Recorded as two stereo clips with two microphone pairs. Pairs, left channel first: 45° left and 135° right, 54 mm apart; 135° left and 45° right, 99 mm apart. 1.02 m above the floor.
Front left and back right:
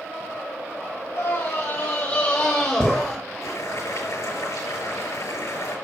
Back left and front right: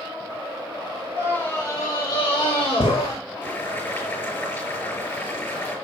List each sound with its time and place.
1.1 s a scream: 65° left, 1.4 m; by 3.1 s 135° left, 2 m
3.4 s boiling: 70° left, 6 m